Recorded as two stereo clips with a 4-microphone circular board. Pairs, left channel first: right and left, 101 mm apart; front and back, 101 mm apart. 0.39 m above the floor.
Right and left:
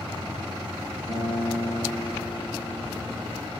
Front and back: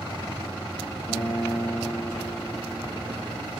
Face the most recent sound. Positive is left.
turn(degrees=140)